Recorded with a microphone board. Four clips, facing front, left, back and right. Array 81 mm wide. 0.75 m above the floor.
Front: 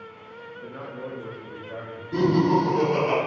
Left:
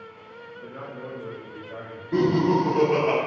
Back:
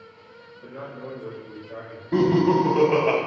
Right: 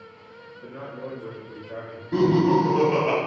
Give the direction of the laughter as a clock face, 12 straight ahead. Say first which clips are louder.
Right 2 dB, back 2 dB; 6 o'clock.